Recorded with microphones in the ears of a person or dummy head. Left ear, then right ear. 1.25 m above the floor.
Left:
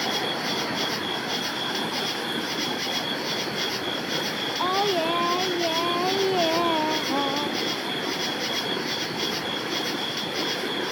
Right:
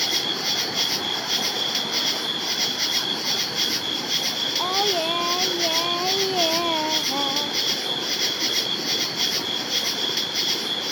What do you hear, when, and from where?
0.0 s an insect: 25° right (ahead or behind)
4.6 s singing: 15° right (ahead or behind)